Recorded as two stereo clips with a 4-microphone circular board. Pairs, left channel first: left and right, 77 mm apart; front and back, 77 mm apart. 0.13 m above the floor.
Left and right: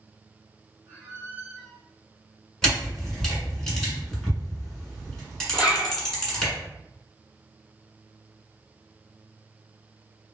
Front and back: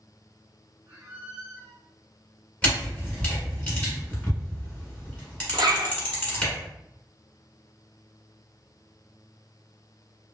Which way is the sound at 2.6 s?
15° left.